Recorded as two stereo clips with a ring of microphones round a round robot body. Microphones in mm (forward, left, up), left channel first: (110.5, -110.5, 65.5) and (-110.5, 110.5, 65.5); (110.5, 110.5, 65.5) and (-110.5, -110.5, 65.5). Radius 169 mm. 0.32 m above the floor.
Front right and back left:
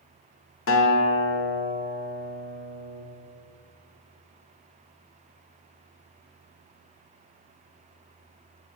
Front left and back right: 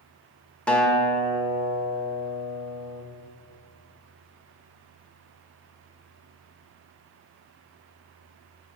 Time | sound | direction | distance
0.7 | a guitar | 40° right | 0.7 m